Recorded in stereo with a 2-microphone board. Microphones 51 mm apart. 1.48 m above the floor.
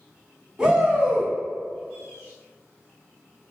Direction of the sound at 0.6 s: 15° right (ahead or behind).